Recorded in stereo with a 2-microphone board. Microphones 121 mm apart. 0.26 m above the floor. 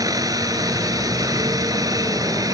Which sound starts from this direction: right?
A helicopter, at 0.0 s.